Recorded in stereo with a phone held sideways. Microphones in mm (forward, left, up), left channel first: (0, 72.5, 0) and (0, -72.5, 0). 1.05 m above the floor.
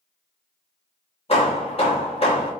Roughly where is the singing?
No singing in this recording.